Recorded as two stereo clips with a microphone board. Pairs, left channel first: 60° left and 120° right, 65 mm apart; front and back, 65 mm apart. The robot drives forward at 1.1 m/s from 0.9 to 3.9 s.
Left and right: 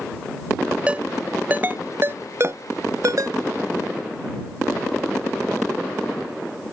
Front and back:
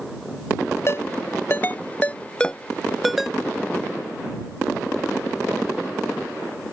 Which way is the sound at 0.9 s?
50° right.